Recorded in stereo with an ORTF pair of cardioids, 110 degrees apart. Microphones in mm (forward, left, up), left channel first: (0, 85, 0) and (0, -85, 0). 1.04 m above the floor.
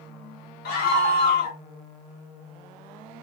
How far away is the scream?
About 1.3 m.